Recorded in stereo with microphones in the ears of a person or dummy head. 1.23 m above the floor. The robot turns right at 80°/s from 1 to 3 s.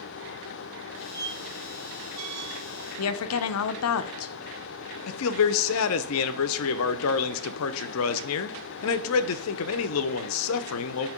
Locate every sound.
1.1 s a squeak: 10° right (ahead or behind), 1.1 m; by 2.6 s 45° right (ahead or behind), 1.1 m
3.0 s a woman speaking: 80° left, 0.5 m; by 4.3 s 85° left, 0.5 m
5.1 s a man speaking: 75° left (ahead or behind), 0.6 m